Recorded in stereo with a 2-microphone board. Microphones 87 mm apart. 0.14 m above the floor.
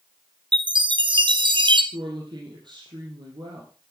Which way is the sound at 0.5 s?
65° right (ahead or behind).